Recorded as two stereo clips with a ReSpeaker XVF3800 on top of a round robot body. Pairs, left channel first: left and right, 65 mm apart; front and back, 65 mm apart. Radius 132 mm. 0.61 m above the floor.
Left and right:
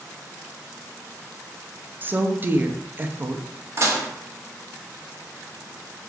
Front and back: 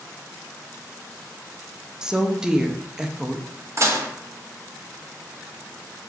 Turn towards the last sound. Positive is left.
turn(degrees=-135)